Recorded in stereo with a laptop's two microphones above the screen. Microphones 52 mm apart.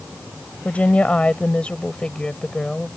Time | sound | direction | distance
0.7 | a woman speaking | 30° left (ahead or behind) | ?